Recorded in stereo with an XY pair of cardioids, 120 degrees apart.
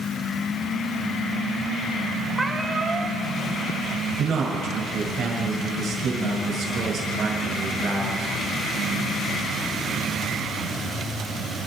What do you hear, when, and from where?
2.4 s a cat meowing: 10° right, 1.5 m
4.2 s a man speaking: 55° right, 6.5 m